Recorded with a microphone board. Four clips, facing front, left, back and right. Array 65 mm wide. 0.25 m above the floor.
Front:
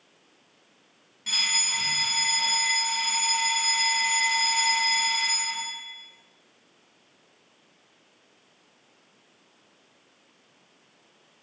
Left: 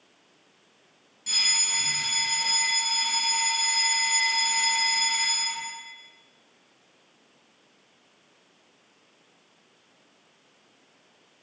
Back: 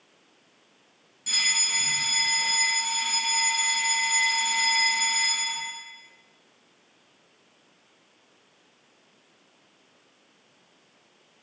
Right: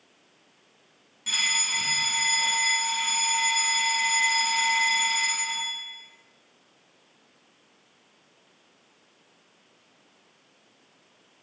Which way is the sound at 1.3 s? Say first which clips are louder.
Right 3 dB, even; 55° right.